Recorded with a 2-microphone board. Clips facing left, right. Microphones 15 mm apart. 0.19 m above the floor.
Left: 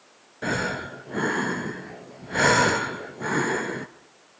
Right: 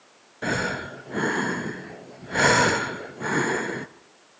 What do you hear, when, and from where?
0.4 s breathing: 5° right (ahead or behind), 0.7 m